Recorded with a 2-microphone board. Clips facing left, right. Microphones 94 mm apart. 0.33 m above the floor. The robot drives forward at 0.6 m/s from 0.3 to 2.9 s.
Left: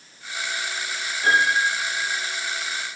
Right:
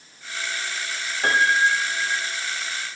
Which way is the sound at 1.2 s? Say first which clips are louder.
Right 1 dB; 50° right (ahead or behind).